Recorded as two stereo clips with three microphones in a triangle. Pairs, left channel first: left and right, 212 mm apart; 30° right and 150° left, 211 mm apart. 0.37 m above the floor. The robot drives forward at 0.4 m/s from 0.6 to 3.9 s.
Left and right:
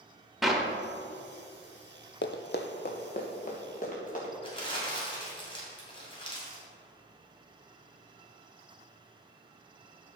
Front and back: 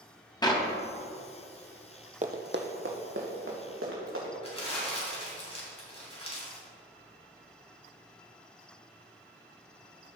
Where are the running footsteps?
100° left, 0.7 m; by 4.3 s 140° left, 3.5 m.